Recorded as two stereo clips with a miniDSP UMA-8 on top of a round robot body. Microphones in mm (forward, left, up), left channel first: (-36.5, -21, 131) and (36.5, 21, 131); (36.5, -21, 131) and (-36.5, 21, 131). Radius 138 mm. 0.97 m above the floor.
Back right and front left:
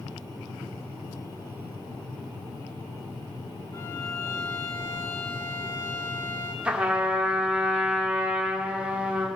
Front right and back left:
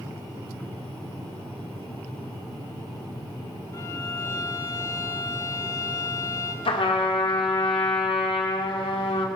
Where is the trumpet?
45° right, 1.7 m.